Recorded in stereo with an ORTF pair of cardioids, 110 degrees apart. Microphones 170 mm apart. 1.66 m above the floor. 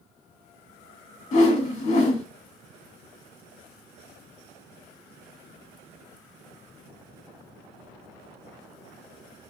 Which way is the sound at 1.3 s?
40° left.